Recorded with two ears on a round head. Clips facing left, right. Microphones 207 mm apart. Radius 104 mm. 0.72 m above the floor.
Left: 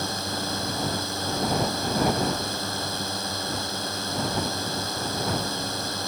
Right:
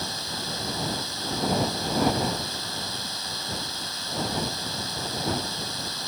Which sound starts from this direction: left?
A drone, at 0.0 s.